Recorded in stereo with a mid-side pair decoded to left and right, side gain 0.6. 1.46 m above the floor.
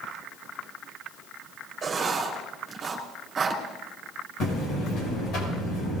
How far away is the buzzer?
About 6.5 m.